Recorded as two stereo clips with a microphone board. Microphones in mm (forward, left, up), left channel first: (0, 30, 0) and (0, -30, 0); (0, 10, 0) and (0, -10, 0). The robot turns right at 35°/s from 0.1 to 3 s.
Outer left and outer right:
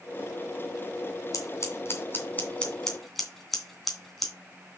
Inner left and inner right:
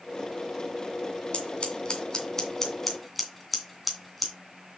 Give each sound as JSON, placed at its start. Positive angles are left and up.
{"t": 1.3, "sound": "scissors", "side_deg": 55, "distance_m": 2.5}